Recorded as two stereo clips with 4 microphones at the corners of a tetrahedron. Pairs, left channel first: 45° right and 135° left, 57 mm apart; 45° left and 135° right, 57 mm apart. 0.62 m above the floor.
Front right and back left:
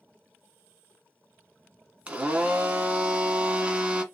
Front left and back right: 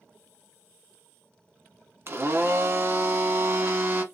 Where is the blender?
165° right, 0.7 m.